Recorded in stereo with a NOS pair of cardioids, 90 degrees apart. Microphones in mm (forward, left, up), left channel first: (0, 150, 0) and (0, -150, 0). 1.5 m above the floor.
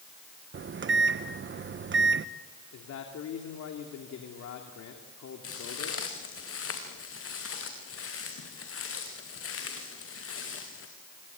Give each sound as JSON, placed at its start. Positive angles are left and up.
{"t": 0.5, "sound": "a microwave", "azimuth_deg": -40, "distance_m": 1.3}
{"t": 2.7, "sound": "a man speaking", "azimuth_deg": 65, "distance_m": 3.0}
{"t": 5.4, "sound": "footsteps", "azimuth_deg": 50, "distance_m": 5.5}